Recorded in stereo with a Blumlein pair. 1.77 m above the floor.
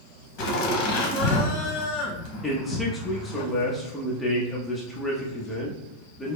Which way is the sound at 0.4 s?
45° left.